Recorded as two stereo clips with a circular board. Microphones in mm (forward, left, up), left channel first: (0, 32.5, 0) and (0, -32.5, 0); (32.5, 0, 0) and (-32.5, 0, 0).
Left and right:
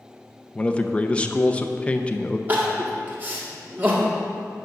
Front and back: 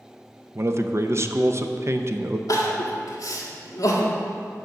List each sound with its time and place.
0.6 s a man speaking: 155° left, 0.6 m
2.5 s crying: 30° right, 1.4 m